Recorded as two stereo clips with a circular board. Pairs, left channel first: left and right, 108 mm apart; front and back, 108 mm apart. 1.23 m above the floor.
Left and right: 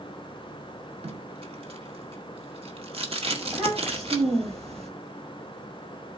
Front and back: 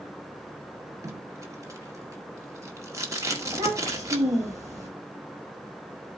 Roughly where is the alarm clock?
I don't hear an alarm clock.